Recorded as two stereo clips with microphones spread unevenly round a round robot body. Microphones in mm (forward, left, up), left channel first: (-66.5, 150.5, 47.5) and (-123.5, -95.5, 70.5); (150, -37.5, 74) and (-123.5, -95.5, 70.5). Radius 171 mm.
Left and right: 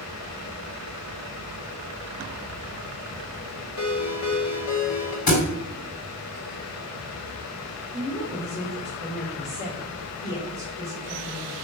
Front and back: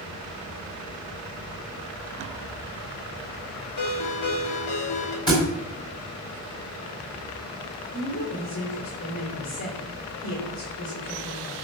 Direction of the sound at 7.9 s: 25° left.